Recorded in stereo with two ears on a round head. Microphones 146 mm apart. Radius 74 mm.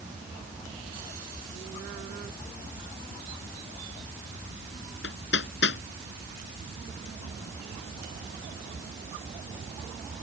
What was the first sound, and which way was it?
Hammering, 85° left.